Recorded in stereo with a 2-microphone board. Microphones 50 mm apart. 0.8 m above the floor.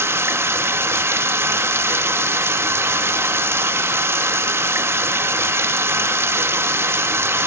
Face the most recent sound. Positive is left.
turn(degrees=-55)  # may be behind; listen again after turning